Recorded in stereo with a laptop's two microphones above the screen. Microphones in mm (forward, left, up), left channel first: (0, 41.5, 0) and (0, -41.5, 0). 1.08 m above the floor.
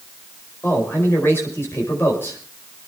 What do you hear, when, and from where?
0.6 s a man speaking: 30° left (ahead or behind), 5 m